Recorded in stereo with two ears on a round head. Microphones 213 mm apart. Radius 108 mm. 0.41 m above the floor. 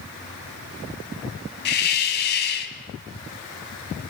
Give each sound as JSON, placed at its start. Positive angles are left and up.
{"t": 1.6, "sound": "a hiss", "side_deg": 45, "distance_m": 2.0}